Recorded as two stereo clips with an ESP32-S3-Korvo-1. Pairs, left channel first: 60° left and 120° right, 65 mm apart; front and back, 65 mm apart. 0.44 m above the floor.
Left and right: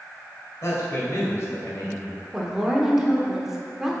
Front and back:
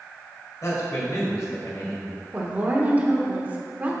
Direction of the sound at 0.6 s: 25° left.